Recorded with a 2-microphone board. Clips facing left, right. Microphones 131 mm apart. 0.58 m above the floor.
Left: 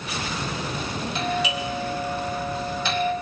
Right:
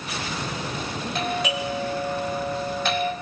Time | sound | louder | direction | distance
1.1 | a doorbell | even | 55° right (ahead or behind) | 4 m